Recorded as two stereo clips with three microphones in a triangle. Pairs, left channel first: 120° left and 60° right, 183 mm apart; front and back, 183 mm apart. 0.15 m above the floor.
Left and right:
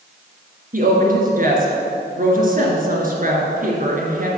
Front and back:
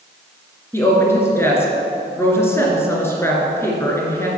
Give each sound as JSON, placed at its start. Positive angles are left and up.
{"t": 0.7, "sound": "a woman speaking", "azimuth_deg": -75, "distance_m": 2.5}